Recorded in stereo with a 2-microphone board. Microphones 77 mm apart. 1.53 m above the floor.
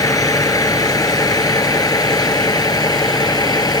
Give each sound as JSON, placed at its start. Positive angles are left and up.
{"t": 0.0, "sound": "a vehicle", "side_deg": 50}